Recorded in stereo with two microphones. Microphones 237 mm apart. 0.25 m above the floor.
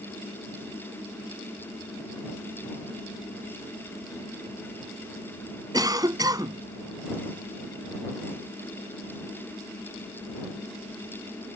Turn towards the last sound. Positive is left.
turn(degrees=-15)  # may be behind; listen again after turning